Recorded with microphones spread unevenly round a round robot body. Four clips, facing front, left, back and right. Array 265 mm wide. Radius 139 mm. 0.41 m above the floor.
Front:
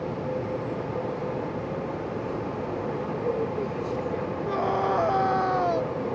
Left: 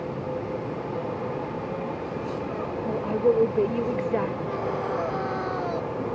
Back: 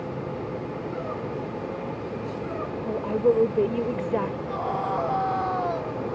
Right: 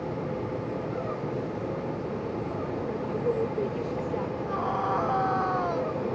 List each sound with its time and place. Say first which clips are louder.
2.9 s a woman speaking: left 8 dB, back 9 dB; 135° left
4.5 s a scream: even, front 2 dB; 15° left